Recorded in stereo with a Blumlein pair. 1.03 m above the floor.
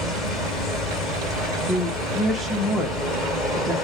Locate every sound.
0.0 s a machine running: 10° left, 1.9 m
1.6 s a woman speaking: straight ahead, 0.9 m